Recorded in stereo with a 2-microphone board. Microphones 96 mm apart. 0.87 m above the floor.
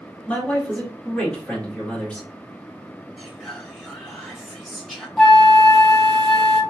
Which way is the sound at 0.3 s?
10° left (ahead or behind).